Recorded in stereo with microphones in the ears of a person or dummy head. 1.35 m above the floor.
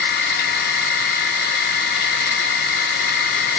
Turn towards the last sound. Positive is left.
turn(degrees=55)  # may be behind; listen again after turning